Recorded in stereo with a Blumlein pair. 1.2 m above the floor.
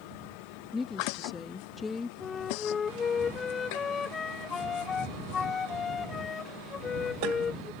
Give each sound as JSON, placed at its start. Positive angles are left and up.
{"t": 0.7, "sound": "a woman speaking", "azimuth_deg": 15}
{"t": 2.2, "sound": "a flute", "azimuth_deg": 20}